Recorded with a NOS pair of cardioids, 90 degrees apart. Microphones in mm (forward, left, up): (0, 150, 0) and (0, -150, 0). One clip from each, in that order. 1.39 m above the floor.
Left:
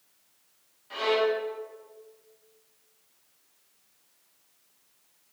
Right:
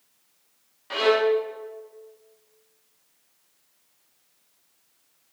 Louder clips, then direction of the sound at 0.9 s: Right 5 dB; 65° right.